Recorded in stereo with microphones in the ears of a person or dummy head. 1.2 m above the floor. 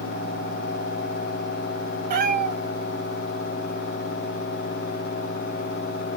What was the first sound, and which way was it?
A cat meowing, 50° right (ahead or behind).